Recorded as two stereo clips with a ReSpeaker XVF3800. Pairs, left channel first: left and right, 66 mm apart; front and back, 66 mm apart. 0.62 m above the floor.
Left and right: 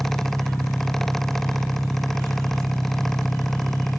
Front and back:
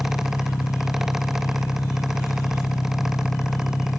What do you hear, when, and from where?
0.0 s an engine running: 40° left